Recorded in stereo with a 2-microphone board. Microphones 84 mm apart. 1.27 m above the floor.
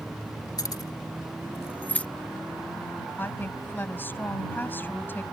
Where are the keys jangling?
55° left (ahead or behind); by 2.1 s 15° left (ahead or behind).